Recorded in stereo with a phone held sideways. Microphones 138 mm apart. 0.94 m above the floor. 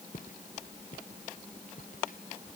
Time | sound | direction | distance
0.1 | footsteps | 75° left (ahead or behind) | ?